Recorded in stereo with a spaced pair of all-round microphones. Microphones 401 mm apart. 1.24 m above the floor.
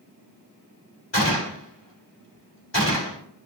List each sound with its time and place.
1.1 s a gunshot: 85° left, 2.5 m